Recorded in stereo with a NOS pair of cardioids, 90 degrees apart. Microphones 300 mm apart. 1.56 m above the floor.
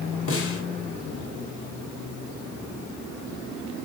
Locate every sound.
0.3 s a snare drum: 45° left, 4.5 m